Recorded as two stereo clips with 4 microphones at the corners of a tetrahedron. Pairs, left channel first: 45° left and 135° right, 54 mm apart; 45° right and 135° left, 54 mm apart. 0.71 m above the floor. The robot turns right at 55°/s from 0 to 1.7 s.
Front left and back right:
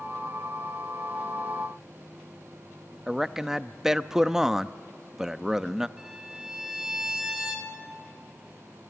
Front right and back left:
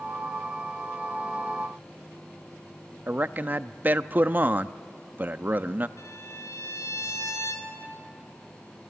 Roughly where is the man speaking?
Behind left.